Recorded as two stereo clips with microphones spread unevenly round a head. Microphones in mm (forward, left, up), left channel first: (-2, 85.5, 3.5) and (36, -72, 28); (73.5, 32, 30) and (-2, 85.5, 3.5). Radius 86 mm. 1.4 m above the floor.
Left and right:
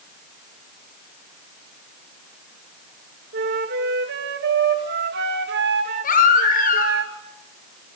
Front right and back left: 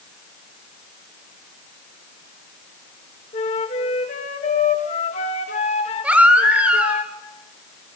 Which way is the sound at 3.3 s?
55° right.